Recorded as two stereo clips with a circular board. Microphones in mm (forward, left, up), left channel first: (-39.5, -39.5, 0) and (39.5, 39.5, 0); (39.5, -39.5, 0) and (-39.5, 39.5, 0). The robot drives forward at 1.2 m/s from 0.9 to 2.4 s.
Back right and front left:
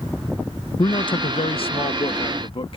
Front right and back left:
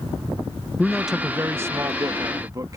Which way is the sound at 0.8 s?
125° right.